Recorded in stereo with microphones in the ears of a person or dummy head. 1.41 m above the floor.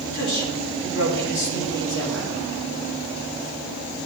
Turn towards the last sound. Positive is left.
turn(degrees=75)  # may be behind; listen again after turning